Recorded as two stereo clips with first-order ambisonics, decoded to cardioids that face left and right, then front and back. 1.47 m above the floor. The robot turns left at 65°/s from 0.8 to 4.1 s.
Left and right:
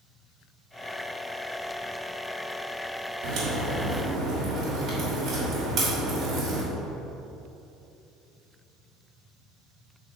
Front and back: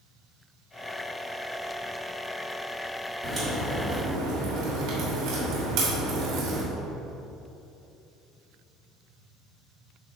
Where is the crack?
100° right, 3 m; by 6.6 s 155° right, 3 m.